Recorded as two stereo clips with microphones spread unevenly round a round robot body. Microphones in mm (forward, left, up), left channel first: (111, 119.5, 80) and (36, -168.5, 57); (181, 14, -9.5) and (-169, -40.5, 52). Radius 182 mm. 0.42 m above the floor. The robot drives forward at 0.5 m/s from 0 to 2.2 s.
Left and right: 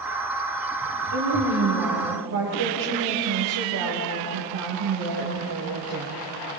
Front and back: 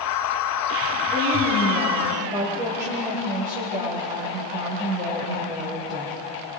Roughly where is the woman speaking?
Right.